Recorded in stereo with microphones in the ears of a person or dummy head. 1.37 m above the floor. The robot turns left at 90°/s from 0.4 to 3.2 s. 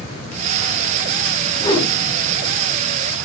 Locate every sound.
1.6 s a whoosh: 155° left, 1.1 m; by 1.9 s 125° left, 1.1 m